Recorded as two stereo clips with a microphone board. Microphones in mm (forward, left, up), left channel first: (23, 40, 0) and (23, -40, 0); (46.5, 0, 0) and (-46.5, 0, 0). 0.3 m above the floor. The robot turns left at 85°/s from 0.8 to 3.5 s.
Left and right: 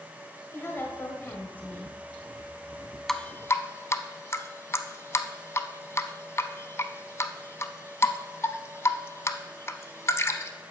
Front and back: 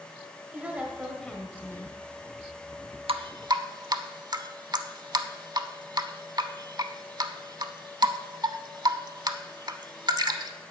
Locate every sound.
0.5 s a woman speaking: 115° left, 1.4 m; by 2.0 s 15° left, 1.4 m
3.1 s dripping: 175° left, 0.6 m; by 10.5 s 140° left, 0.6 m